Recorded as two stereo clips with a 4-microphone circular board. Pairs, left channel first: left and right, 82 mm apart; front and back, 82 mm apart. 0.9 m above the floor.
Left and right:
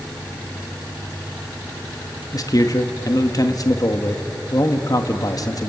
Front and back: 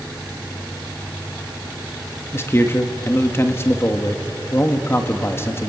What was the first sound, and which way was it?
A man speaking, 55° left.